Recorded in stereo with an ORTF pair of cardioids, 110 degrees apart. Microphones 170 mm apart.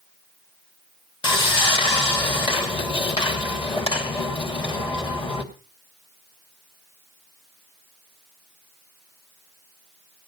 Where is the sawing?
30° left, 2.5 m.